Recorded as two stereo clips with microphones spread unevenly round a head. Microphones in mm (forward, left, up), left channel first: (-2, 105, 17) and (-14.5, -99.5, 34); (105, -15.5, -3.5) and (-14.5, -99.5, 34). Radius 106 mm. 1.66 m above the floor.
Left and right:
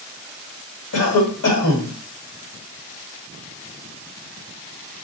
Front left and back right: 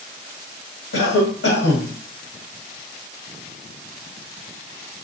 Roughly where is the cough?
Ahead left.